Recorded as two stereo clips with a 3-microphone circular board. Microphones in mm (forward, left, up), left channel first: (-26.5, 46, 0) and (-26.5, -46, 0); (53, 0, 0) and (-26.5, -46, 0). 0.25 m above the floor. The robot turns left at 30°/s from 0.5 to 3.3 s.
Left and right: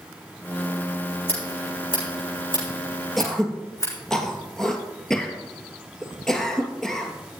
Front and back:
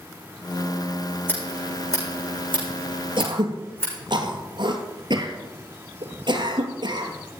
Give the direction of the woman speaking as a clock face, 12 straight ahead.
No woman speaking in this recording.